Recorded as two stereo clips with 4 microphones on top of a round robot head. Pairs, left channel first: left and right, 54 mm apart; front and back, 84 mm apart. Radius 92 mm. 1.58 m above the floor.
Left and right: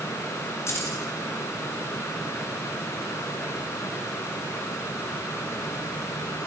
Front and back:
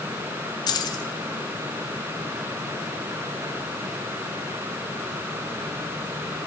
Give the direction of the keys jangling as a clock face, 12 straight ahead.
11 o'clock.